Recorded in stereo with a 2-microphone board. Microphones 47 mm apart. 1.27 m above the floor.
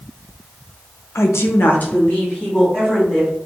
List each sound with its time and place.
1.1 s a woman speaking: 70° left (ahead or behind), 0.6 m; by 3.3 s 20° left (ahead or behind), 2.5 m